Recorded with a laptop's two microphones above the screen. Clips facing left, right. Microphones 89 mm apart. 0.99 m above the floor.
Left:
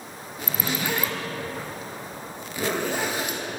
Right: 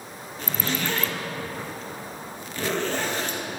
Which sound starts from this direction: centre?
A zipper, at 0.4 s.